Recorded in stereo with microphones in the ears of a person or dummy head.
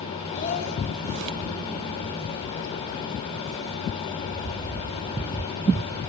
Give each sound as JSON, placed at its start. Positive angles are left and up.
{"t": 0.3, "sound": "a child speaking", "side_deg": 45, "distance_m": 4.0}